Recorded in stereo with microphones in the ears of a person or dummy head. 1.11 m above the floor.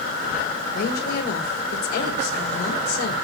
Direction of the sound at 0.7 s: 55° left (ahead or behind).